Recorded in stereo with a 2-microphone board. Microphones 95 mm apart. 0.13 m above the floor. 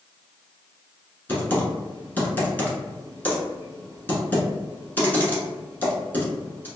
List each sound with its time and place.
1.3 s typing on a keyboard: 20° left (ahead or behind), 0.9 m